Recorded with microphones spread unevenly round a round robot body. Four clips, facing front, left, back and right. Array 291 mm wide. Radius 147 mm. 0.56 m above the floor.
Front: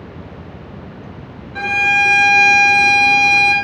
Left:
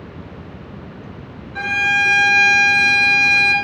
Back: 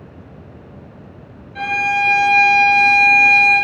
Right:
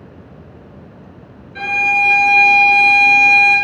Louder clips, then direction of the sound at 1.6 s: Right 2 dB, front 1 dB; 20° right.